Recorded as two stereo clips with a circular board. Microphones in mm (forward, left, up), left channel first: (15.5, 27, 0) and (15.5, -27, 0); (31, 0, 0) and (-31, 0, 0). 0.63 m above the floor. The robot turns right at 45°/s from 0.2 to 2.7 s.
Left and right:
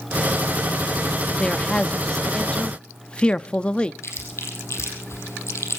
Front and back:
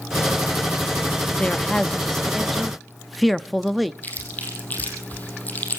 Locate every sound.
1.4 s a man speaking: 25° left, 0.6 m; by 3.9 s 85° left, 0.6 m
4.0 s chewing: 60° left, 4 m